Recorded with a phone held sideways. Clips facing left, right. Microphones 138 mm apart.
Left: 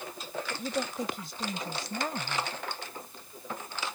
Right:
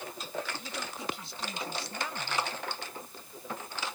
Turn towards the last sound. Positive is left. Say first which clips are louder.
# left 7 dB
turn(degrees=45)  # may be behind; listen again after turning